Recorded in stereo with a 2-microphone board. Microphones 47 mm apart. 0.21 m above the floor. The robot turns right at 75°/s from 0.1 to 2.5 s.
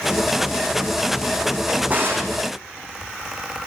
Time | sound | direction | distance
1.7 | a drawer | 165° right | 5 m